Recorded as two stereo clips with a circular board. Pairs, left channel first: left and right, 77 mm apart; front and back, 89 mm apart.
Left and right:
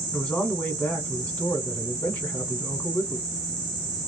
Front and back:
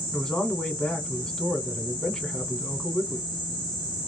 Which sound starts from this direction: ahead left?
A man speaking, at 0.1 s.